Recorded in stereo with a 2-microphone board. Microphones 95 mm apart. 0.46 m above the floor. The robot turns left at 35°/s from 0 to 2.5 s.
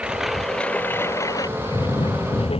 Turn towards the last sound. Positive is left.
turn(degrees=105)